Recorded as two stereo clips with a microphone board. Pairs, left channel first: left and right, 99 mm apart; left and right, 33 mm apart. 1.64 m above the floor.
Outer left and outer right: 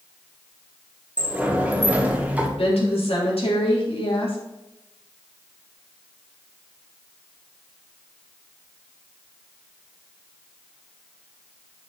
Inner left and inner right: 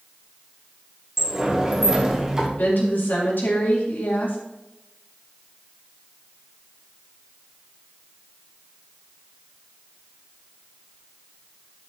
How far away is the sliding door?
About 1.4 m.